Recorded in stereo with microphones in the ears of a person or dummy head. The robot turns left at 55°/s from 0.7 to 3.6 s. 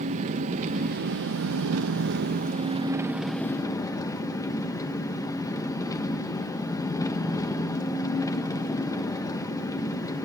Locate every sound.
0.0 s an engine running: 35° right, 1.2 m; by 10.3 s 165° left, 1.2 m